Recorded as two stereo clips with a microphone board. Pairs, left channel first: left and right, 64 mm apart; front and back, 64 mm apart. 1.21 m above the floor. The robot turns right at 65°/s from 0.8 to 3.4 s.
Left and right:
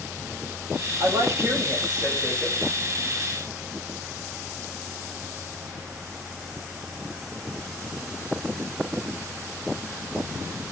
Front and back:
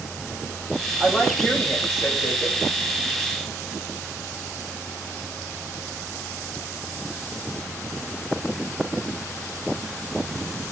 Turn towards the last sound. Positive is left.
turn(degrees=60)